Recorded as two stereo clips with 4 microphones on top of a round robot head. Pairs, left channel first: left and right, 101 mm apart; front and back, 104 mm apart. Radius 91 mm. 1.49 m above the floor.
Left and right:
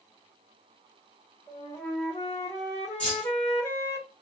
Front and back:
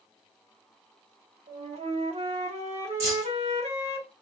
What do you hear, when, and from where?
1.5 s a flute: 160° left, 0.9 m
3.0 s keys jangling: 165° left, 0.6 m